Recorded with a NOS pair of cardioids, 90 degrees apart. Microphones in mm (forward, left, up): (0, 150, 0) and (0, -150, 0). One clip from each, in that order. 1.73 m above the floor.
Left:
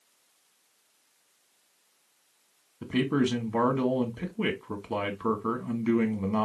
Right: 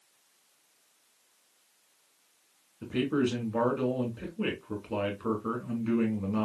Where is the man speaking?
50° left, 1.7 m.